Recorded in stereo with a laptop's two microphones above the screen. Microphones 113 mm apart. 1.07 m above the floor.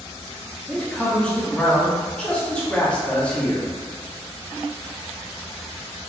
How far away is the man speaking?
About 1.1 m.